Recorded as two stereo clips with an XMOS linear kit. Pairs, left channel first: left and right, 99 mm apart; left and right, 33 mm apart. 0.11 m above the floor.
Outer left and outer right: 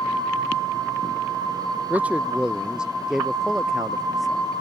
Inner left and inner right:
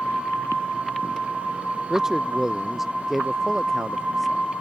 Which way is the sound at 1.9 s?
15° right (ahead or behind).